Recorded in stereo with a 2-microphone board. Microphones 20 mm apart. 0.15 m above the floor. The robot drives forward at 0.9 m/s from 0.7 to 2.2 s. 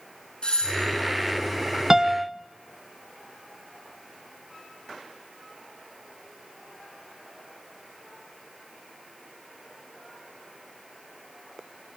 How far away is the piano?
About 0.7 m.